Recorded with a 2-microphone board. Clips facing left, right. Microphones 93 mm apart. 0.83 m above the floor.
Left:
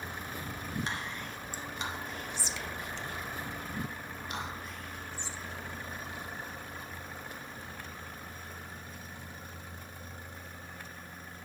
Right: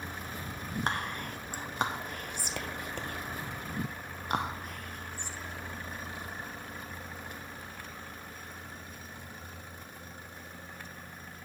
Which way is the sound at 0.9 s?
55° right (ahead or behind).